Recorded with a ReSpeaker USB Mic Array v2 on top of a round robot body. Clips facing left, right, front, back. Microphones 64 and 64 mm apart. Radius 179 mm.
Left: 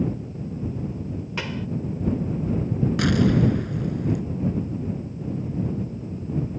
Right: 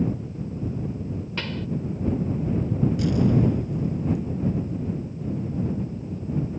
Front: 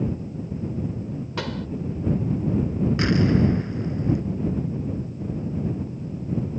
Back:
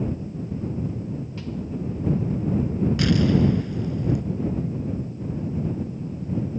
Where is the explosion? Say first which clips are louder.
Left 3 dB, even; 65° left.